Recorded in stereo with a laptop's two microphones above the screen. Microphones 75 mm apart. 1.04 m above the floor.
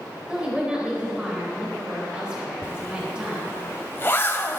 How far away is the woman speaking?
About 4.5 m.